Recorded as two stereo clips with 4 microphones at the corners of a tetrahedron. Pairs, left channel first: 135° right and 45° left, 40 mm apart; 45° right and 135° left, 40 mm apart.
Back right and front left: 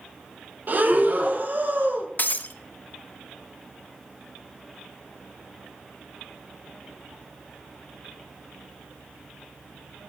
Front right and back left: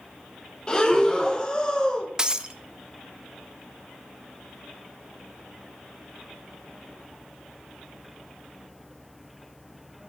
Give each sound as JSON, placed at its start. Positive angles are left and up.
{"t": 0.7, "sound": "breathing", "azimuth_deg": 20, "distance_m": 1.0}
{"t": 2.2, "sound": "breaking glass", "azimuth_deg": -155, "distance_m": 0.5}